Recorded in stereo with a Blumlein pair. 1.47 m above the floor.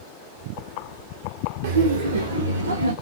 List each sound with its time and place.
1.6 s laughter: 60° right, 0.6 m; by 2.9 s 75° right, 1.7 m